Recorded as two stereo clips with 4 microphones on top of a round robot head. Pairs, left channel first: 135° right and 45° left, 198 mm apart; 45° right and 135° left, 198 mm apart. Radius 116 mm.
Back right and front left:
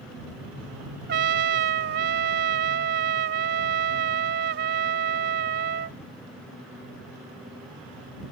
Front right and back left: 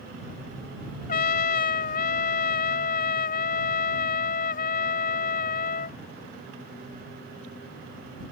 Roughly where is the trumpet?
Ahead.